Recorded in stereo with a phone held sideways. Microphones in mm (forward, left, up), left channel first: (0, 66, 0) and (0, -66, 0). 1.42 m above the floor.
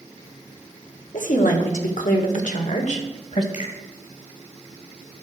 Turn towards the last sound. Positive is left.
turn(degrees=70)  # may be behind; listen again after turning